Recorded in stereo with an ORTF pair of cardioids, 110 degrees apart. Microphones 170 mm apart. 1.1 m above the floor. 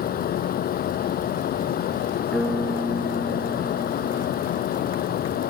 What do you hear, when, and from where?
0.0 s a fan: 60° left
2.3 s a piano: 5° left